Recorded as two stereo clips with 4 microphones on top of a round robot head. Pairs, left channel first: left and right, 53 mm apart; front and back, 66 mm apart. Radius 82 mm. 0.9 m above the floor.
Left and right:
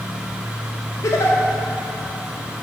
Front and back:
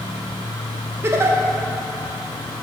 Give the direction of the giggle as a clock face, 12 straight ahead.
8 o'clock.